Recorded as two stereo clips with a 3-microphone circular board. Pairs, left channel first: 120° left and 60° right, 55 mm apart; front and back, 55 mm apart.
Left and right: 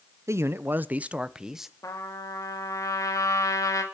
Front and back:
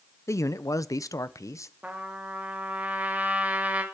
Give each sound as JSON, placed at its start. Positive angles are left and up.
{"t": 0.3, "sound": "a man speaking", "azimuth_deg": -30, "distance_m": 0.6}
{"t": 1.8, "sound": "a trumpet", "azimuth_deg": 115, "distance_m": 2.5}